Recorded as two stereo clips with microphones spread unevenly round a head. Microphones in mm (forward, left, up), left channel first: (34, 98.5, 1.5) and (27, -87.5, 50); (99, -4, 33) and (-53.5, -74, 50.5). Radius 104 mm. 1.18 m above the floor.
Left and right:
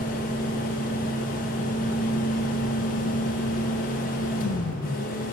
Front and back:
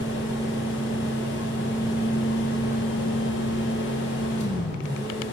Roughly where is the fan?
Ahead left.